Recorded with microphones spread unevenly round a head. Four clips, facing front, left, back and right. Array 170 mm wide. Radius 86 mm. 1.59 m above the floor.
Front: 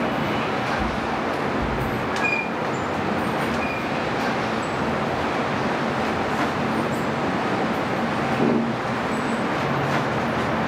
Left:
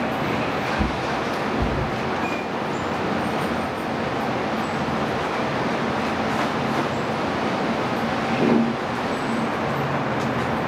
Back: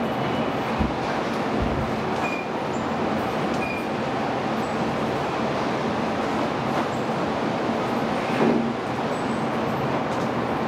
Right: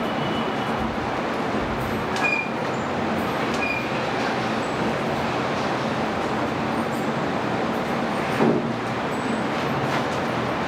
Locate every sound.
0.8 s a bird: 145° left, 1.7 m